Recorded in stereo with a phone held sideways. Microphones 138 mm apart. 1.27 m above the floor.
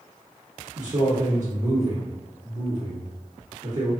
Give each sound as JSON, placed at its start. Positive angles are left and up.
{"t": 0.8, "sound": "a man speaking", "side_deg": -60, "distance_m": 1.3}